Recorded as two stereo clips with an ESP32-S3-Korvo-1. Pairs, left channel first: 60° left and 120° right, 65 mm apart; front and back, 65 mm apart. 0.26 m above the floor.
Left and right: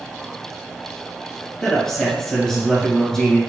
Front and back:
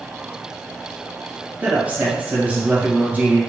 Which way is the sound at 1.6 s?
140° left.